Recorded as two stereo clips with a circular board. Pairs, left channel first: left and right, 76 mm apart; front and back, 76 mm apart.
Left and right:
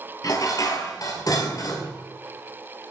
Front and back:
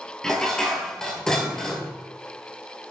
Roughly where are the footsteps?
I don't hear footsteps.